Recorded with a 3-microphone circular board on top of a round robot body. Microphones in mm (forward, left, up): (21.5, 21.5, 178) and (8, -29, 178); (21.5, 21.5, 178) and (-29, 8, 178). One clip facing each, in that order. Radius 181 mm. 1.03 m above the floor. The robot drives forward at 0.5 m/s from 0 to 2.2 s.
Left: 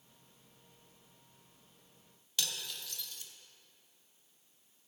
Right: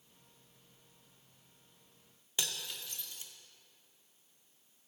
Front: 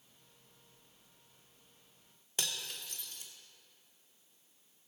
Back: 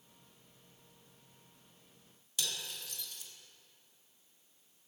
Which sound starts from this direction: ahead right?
Cutlery clinking, at 2.4 s.